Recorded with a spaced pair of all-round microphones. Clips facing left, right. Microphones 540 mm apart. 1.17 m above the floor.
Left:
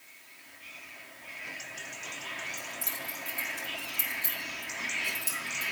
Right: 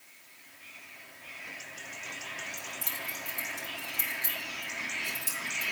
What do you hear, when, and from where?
2.6 s keys jangling: 15° right (ahead or behind), 2.5 m